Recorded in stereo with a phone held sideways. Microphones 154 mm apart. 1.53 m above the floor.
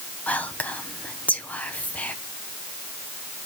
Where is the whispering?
10° left (ahead or behind), 1.0 m.